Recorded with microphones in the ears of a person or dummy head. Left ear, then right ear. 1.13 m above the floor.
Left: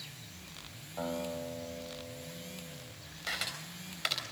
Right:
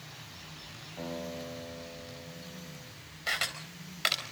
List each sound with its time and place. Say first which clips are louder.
1.0 s a guitar: left 3 dB; 50° left (ahead or behind), 4 m
3.3 s a camera shutter: right 4 dB; 15° right (ahead or behind), 4 m